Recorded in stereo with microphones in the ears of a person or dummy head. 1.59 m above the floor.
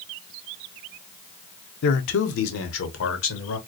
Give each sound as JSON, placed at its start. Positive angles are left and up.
{"t": 1.8, "sound": "a man speaking", "side_deg": 55, "distance_m": 0.7}